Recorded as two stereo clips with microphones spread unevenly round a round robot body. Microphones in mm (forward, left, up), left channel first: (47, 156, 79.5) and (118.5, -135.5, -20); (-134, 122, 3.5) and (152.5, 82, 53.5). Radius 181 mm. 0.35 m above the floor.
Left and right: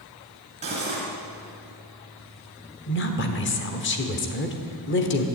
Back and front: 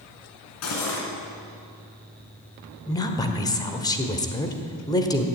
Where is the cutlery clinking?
145° right, 2.5 m.